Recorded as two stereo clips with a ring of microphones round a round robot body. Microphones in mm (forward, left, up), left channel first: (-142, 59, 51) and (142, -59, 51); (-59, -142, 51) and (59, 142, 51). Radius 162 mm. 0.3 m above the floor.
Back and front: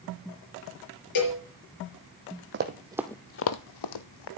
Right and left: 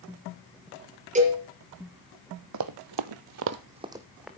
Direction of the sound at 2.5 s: 30° left.